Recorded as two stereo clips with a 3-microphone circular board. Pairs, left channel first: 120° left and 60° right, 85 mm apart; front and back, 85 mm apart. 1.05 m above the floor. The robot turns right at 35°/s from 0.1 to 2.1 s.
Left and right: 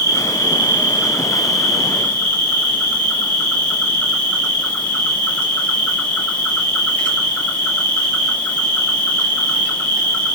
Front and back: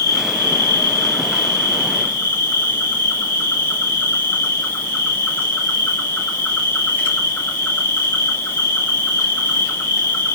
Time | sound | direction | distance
0.0 | an insect | 15° right | 1.5 m